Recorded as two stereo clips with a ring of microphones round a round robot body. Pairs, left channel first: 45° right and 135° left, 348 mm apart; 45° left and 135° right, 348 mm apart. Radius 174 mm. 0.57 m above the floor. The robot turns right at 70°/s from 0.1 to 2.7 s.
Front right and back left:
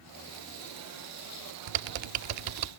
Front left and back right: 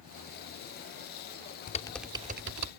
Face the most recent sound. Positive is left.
turn(degrees=-175)